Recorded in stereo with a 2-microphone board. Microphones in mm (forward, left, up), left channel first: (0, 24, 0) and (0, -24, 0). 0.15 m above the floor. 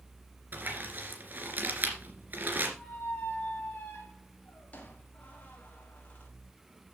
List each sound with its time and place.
0.5 s crumpling: 40° right (ahead or behind), 2.5 m
2.8 s a squeak: 30° left (ahead or behind), 3.5 m